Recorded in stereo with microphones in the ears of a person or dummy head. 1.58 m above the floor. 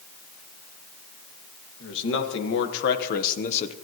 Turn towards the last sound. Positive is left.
turn(degrees=25)  # may be behind; listen again after turning